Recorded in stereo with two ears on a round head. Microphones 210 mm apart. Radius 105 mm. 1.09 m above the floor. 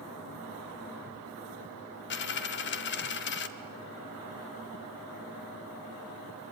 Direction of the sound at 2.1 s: 50° left (ahead or behind).